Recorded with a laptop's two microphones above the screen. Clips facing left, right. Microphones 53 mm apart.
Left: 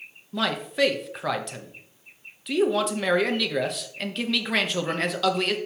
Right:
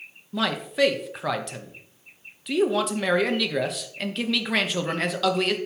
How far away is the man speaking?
About 0.7 m.